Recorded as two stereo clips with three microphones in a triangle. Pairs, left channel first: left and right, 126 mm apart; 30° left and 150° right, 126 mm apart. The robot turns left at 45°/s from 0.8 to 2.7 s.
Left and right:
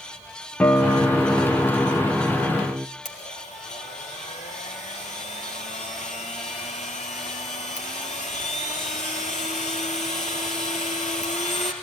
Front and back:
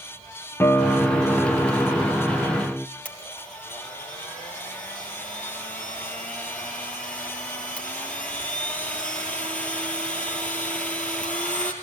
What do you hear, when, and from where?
0.6 s a guitar: 40° left, 0.7 m; by 2.9 s 45° right, 0.7 m
3.0 s a blender: 110° left, 3 m